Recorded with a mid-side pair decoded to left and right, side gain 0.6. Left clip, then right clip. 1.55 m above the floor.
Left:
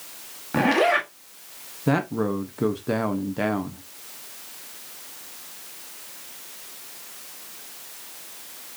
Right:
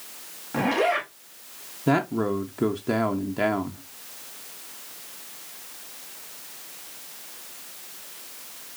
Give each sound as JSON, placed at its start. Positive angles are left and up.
{"t": 0.5, "sound": "a zipper", "azimuth_deg": 30, "distance_m": 1.2}
{"t": 1.9, "sound": "a man speaking", "azimuth_deg": -5, "distance_m": 0.7}